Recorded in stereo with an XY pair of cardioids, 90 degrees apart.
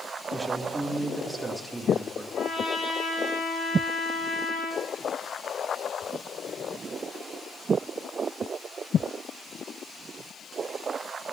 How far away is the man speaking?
About 2.5 m.